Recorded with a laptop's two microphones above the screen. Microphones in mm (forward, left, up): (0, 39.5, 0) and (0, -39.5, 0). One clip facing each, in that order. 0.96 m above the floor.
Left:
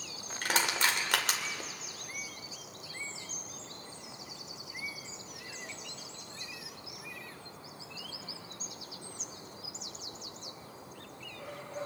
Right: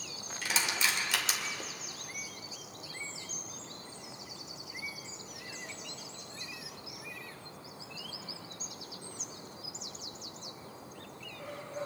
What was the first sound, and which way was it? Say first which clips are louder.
Crushing: left 3 dB; 55° left (ahead or behind).